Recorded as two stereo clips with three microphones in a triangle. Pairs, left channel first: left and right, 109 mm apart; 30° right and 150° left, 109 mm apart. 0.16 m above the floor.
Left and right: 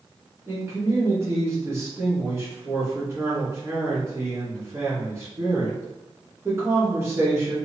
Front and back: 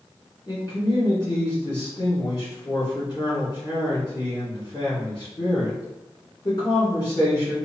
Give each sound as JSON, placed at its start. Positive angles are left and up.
{"t": 0.5, "sound": "a man speaking", "azimuth_deg": -40, "distance_m": 2.0}